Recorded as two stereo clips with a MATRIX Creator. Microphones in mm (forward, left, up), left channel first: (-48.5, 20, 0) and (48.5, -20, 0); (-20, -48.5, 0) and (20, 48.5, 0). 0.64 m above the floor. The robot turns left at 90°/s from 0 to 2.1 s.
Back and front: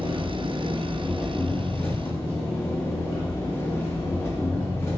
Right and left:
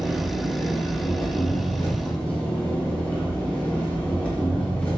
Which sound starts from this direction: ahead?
An engine running, at 0.0 s.